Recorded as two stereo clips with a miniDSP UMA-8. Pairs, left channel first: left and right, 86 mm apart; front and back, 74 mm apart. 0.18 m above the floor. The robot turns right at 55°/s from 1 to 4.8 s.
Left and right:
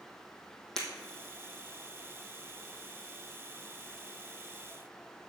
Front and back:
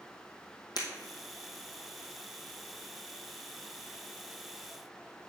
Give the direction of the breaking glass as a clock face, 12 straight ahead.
12 o'clock.